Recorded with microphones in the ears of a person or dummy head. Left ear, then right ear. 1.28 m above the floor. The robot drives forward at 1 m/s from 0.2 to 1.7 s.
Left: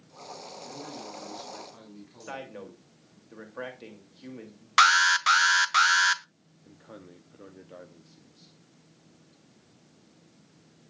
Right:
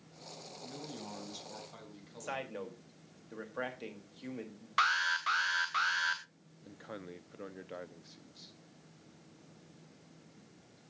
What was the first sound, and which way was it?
A man speaking, 85° right.